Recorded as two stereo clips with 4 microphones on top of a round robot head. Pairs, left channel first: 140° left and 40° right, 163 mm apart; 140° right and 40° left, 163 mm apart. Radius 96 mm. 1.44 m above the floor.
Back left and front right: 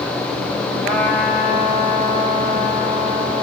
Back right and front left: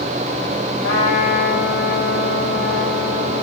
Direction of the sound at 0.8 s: 135° right.